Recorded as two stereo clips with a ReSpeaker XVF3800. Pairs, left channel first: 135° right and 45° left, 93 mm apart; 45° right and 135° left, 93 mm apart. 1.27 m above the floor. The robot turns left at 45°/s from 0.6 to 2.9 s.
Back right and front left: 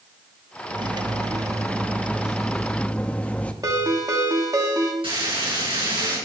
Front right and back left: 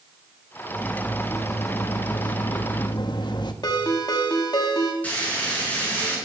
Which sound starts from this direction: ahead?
A ringtone, at 3.6 s.